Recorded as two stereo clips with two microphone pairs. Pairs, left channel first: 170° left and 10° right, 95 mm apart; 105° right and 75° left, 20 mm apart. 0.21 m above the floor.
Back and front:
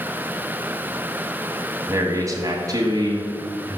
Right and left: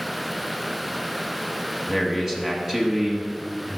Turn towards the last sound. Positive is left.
turn(degrees=25)